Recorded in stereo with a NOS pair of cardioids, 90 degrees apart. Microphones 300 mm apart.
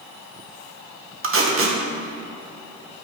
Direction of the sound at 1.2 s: 45° right.